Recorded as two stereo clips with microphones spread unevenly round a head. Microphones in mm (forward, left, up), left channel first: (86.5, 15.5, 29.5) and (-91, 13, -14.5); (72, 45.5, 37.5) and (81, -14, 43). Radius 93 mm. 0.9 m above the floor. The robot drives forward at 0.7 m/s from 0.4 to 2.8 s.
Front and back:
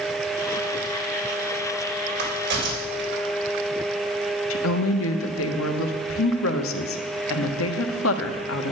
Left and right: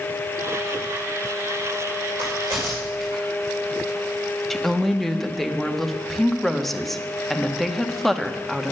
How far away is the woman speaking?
About 1.3 m.